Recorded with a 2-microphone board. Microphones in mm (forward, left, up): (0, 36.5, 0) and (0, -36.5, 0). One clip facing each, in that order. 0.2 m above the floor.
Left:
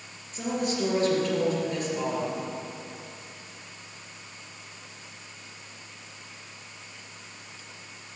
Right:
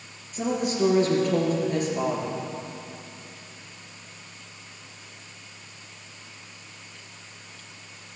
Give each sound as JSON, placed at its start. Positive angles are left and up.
{"t": 0.3, "sound": "a woman speaking", "side_deg": -10, "distance_m": 3.0}